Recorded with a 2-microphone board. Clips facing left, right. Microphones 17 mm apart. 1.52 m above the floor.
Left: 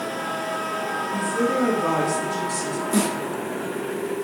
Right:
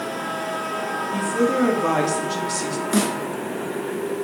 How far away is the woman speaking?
About 3.5 m.